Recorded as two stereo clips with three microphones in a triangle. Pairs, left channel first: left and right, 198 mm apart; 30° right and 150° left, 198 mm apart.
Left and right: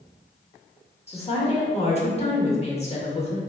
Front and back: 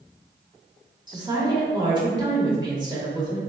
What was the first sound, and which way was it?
A woman speaking, 105° left.